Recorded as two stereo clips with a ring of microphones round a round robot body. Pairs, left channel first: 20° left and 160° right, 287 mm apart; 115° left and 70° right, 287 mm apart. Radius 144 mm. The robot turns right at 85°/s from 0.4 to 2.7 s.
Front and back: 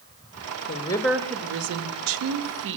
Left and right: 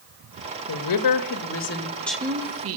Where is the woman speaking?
80° left, 1.0 m; by 2.8 s 105° right, 1.0 m.